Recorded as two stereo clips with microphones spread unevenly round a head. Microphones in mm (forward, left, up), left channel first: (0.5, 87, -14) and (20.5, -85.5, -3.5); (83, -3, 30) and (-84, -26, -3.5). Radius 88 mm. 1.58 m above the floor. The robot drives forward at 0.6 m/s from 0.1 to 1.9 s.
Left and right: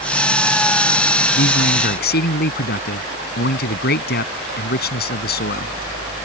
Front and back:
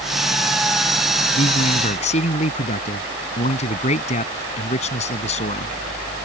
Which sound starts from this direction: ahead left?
A man speaking, at 1.4 s.